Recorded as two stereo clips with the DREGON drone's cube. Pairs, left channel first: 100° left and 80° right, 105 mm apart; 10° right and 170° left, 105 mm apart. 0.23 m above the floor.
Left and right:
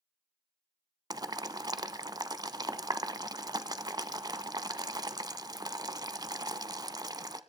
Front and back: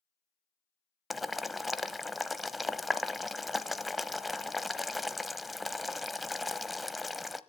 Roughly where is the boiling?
Right.